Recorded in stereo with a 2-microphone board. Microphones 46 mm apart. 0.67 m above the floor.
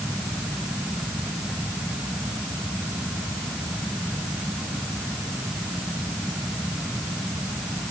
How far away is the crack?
No crack in this recording.